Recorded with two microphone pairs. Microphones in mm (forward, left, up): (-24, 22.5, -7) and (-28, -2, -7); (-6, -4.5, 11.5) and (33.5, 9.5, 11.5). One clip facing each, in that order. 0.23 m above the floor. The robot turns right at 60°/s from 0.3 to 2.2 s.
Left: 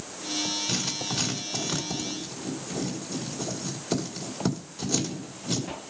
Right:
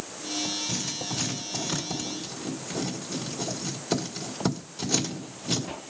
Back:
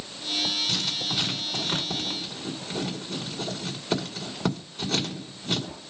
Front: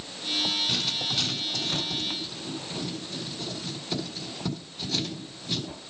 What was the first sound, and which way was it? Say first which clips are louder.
Writing: left 2 dB, even; 90° left.